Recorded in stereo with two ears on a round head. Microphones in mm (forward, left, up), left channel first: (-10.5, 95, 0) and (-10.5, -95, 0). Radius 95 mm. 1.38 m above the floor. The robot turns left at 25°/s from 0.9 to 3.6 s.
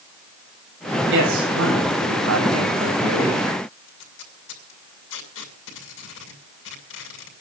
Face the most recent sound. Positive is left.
turn(degrees=60)  # may be behind; listen again after turning